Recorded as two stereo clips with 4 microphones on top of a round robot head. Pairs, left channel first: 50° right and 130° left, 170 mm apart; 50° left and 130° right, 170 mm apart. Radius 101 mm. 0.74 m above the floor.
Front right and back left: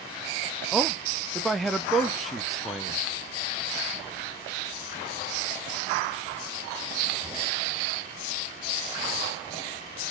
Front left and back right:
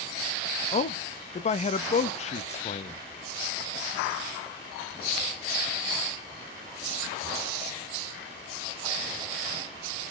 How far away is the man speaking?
About 0.6 m.